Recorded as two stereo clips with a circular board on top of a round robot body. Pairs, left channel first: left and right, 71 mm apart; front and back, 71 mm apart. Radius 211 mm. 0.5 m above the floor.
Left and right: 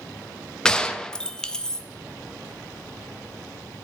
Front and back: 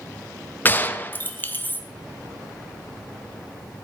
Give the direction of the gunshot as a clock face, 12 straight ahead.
11 o'clock.